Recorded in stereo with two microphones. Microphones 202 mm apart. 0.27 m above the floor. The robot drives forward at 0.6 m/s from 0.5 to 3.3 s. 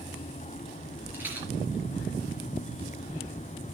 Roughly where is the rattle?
Centre.